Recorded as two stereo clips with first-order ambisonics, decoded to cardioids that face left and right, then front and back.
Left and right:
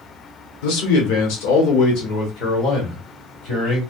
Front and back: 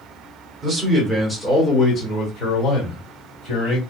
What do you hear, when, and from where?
0.6 s a man speaking: 110° left, 1.1 m; by 3.8 s 30° left, 2.0 m